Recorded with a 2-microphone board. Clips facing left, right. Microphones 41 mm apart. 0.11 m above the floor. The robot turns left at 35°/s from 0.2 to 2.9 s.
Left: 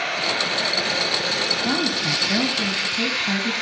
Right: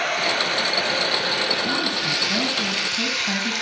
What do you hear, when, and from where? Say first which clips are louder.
0.0 s running water: right 1 dB; 110° right, 4.5 m; by 3.6 s 155° left, 4.5 m
1.6 s a woman speaking: left 1 dB; 45° left, 1.5 m; by 3.5 s straight ahead, 1.5 m